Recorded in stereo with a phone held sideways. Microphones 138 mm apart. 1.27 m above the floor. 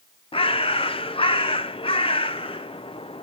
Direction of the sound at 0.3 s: 40° left (ahead or behind).